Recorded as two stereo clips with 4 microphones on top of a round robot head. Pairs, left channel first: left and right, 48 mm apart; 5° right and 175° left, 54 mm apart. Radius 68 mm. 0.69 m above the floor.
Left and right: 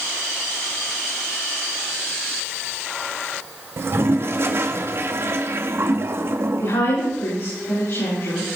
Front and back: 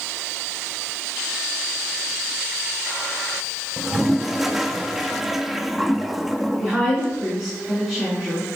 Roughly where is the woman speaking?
Left.